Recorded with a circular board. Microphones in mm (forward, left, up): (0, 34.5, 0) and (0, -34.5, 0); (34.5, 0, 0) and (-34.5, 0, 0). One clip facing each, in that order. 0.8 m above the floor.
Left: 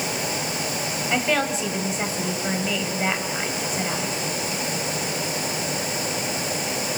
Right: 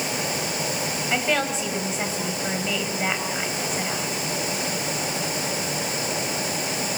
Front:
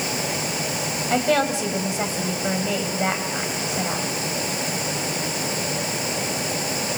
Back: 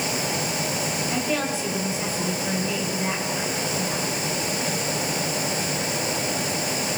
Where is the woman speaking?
Straight ahead, 4.5 m.